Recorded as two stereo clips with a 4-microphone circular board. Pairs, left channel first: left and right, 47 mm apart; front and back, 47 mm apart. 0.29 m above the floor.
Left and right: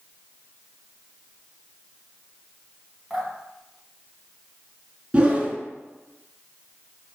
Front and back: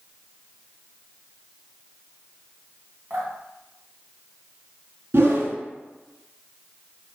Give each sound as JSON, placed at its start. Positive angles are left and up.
{"t": 3.1, "sound": "dripping", "azimuth_deg": 180, "distance_m": 2.0}
{"t": 5.1, "sound": "a whoosh", "azimuth_deg": -155, "distance_m": 0.8}